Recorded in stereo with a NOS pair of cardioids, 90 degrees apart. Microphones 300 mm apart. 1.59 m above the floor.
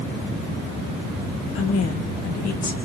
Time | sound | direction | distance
1.6 | a woman speaking | 50° left | 1.3 m